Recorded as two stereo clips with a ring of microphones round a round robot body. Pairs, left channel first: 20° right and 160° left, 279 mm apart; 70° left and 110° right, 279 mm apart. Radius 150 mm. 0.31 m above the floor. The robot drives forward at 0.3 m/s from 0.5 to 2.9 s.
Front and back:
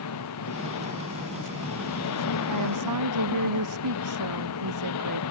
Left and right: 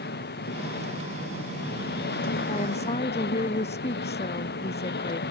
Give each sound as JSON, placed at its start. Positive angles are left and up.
{"t": 0.0, "sound": "an engine running", "azimuth_deg": 10}
{"t": 2.5, "sound": "a woman speaking", "azimuth_deg": 135}